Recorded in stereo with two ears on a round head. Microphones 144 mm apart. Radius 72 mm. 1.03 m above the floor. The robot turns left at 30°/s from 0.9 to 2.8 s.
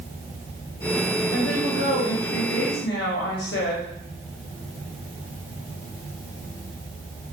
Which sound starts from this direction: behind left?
A woman speaking, at 1.3 s.